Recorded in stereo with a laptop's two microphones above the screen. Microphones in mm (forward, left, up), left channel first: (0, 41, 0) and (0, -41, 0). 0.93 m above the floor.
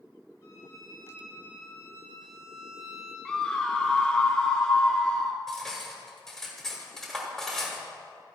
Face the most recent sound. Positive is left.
turn(degrees=5)  # may be behind; listen again after turning